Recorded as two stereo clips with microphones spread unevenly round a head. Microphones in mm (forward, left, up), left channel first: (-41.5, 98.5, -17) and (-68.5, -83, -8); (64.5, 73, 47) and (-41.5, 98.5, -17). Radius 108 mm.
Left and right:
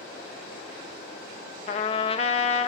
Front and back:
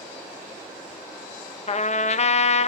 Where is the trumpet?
20° left, 0.8 m.